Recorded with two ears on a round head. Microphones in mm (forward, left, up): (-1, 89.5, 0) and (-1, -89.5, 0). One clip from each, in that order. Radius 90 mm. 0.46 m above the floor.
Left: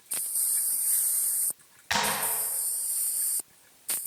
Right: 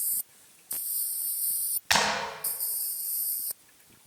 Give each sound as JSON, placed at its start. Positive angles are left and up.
{"t": 1.9, "sound": "a clap", "side_deg": -35, "distance_m": 3.5}